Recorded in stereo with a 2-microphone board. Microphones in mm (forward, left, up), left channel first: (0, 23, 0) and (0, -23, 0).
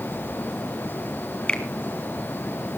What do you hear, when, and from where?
1.5 s a finger snap: 20° left (ahead or behind), 1.6 m